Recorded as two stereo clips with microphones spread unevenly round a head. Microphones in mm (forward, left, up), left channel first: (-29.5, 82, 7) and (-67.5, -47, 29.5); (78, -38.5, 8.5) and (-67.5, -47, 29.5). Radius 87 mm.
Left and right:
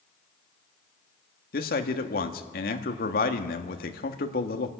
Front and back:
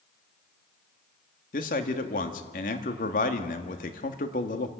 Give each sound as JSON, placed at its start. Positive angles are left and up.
{"t": 1.5, "sound": "a man speaking", "azimuth_deg": 45, "distance_m": 1.5}